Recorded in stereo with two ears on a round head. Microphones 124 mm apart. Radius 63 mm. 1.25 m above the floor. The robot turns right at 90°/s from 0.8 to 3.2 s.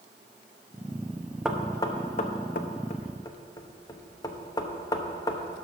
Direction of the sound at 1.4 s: 10° right (ahead or behind).